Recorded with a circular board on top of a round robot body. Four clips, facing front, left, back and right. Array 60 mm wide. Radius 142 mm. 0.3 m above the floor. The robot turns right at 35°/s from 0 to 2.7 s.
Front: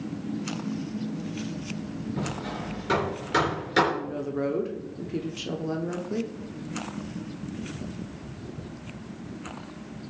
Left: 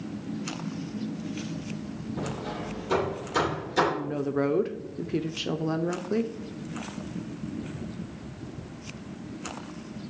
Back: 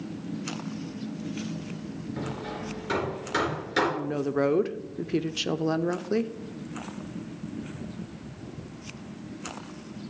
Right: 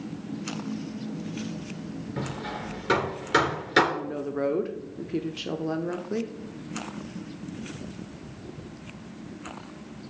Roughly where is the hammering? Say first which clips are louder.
Even, front 1 dB; right.